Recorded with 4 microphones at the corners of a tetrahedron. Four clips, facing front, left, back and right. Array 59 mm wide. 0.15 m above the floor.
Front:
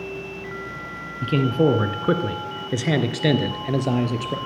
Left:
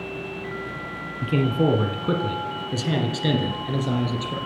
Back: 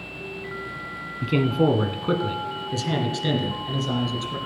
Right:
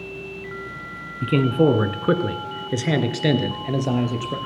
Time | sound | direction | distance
1.2 | a man speaking | 105° right | 1.6 m